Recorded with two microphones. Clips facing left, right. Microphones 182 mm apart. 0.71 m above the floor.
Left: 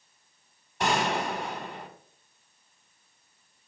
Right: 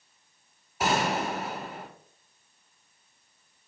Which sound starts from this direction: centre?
A gunshot, at 0.8 s.